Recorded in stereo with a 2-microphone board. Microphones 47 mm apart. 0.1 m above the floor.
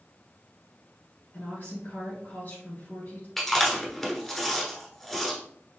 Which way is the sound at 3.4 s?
10° left (ahead or behind).